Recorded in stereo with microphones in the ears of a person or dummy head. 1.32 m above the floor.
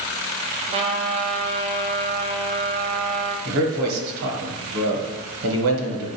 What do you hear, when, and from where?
0.7 s a trumpet: 30° right (ahead or behind), 0.5 m
3.5 s a man speaking: 70° right (ahead or behind), 1.0 m